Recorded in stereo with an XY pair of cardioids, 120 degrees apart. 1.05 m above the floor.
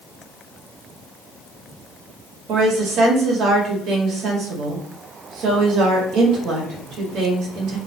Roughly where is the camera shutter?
I don't hear a camera shutter.